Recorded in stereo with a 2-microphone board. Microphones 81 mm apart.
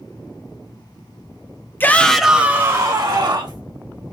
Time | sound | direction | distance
1.8 | a shout | 25° left (ahead or behind) | 0.6 m